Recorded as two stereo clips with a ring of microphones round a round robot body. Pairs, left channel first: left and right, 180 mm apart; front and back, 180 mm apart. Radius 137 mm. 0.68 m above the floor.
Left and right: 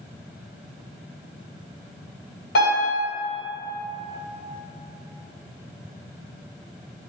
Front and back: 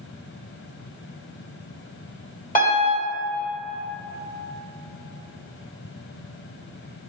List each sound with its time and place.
2.5 s a piano: 40° left, 1.5 m